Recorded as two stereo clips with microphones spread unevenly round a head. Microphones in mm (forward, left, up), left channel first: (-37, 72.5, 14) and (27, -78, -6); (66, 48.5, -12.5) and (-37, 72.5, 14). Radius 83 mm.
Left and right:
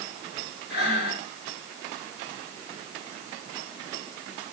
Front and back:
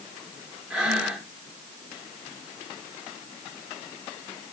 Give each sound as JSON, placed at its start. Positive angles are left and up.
{"t": 0.7, "sound": "breathing", "azimuth_deg": 85, "distance_m": 6.0}